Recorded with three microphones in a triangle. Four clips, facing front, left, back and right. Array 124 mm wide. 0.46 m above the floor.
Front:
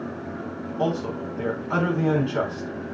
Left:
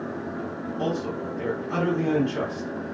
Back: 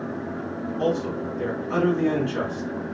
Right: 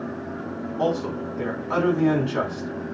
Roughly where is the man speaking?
Ahead right.